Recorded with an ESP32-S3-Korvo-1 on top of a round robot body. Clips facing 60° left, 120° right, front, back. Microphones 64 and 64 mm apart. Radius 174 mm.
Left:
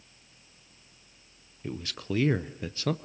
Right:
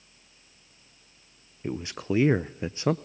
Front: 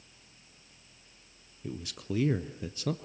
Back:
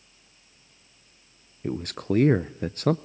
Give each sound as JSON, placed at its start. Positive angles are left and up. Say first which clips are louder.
{"t": 1.6, "sound": "a man speaking", "louder": "right 5 dB, back 10 dB", "azimuth_deg": 175, "distance_m": 0.6}